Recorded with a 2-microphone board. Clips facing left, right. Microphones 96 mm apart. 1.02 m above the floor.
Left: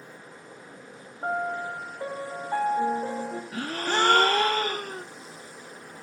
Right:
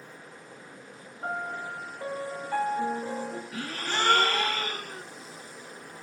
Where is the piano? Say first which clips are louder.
Left 5 dB; 30° left (ahead or behind), 2.0 m.